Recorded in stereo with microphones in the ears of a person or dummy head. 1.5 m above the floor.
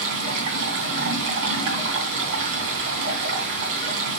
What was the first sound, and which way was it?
Running water, 60° right (ahead or behind).